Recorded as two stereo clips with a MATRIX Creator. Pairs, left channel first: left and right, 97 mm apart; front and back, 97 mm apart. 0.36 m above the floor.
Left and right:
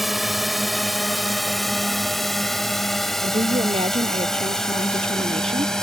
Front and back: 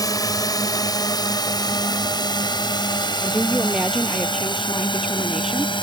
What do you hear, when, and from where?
0.0 s a drone: straight ahead; by 5.8 s 5° left
3.2 s a woman speaking: 95° right